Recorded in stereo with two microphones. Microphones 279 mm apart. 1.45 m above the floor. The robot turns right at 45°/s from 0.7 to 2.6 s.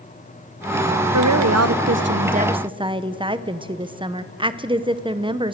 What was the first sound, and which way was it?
A woman speaking, 85° right.